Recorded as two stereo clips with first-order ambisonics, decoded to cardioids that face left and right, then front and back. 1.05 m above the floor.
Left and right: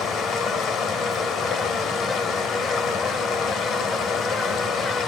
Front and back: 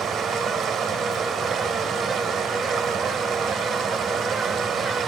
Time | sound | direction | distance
0.0 | running water | 130° left | 1.1 m